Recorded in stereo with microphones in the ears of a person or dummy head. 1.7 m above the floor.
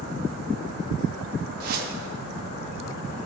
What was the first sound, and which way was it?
A whoosh, 50° right (ahead or behind).